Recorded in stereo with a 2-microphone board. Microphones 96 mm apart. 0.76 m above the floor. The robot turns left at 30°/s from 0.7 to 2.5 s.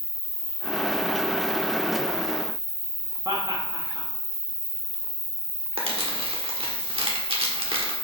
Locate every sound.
0.0 s an insect: 50° right, 2.5 m; by 8.1 s 105° right, 2.5 m
3.2 s laughter: 40° right (ahead or behind), 1.2 m
5.8 s crumpling: 70° right (ahead or behind), 1.4 m